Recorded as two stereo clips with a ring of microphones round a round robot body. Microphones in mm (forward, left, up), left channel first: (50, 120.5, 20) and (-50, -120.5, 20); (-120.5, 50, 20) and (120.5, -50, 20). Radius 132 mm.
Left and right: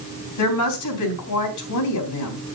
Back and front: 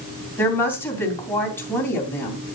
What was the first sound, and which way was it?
A woman speaking, 75° left.